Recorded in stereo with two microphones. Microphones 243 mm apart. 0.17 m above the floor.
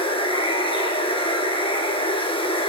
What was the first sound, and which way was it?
Running water, 20° left (ahead or behind).